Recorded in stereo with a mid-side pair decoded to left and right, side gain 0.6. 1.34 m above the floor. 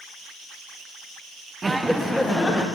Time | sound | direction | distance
1.6 | laughter | 20° right | 0.5 m